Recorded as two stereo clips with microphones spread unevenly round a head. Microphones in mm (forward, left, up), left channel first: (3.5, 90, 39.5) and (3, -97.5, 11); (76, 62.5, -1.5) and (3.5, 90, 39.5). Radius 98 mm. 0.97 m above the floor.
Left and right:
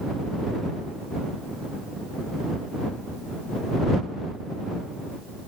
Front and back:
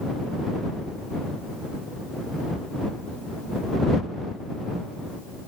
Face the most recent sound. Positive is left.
No sound to turn to.